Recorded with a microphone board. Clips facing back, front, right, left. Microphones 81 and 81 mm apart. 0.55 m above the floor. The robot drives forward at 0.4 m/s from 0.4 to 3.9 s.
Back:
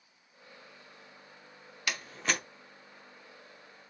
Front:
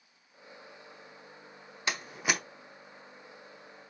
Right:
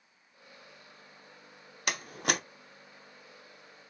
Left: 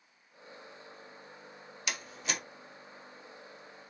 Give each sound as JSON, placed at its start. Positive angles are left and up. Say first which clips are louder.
{"t": 1.9, "sound": "a door slam", "louder": "front 1 dB, right 6 dB", "azimuth_deg": -60, "distance_m": 0.6}